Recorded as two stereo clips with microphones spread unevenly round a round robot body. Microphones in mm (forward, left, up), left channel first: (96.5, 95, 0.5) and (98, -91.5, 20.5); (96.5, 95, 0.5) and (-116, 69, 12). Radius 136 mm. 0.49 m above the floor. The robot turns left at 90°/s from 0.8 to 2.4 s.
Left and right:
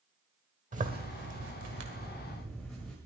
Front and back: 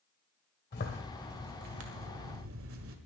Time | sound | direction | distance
0.7 | a zipper | 40° right | 1.8 m